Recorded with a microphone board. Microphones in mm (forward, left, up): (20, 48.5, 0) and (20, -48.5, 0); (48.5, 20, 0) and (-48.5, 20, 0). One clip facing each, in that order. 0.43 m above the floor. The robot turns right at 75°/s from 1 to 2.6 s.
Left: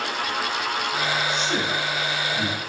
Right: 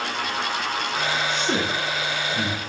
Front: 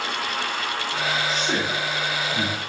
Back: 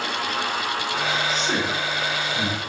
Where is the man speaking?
95° right, 3.5 m; by 2.6 s 5° left, 3.5 m.